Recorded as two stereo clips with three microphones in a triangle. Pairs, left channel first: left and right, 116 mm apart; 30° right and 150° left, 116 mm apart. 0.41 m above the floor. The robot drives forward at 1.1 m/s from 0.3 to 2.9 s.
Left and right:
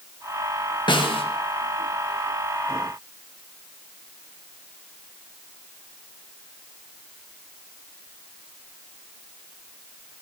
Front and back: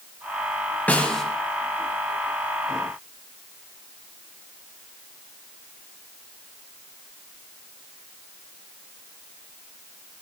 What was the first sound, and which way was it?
A snare drum, 45° left.